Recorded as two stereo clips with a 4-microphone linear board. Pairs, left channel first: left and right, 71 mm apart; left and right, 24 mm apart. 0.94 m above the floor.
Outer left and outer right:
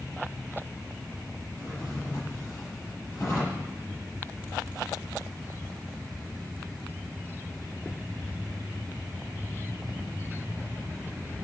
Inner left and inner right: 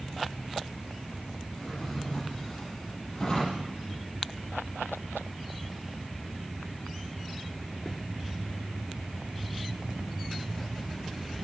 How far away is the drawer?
About 8.5 m.